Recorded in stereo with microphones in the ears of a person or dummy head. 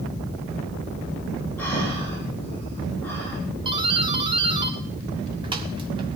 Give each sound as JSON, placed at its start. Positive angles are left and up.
{"t": 1.6, "sound": "breathing", "side_deg": 10, "distance_m": 9.0}
{"t": 3.6, "sound": "a doorbell", "side_deg": -30, "distance_m": 1.2}